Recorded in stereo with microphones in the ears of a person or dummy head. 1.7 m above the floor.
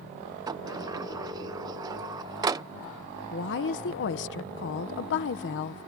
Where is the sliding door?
20° right (ahead or behind).